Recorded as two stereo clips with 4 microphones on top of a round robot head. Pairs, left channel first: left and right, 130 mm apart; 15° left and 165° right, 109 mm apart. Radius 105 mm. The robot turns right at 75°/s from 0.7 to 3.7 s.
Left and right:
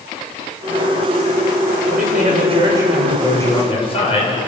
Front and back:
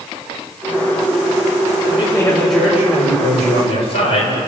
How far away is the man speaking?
About 7.5 m.